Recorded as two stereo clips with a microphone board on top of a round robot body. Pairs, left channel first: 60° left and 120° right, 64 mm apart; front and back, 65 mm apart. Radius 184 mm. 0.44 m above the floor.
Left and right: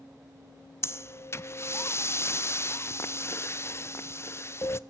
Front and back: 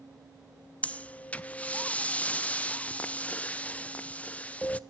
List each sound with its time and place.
0.8 s breathing: 60° left, 0.7 m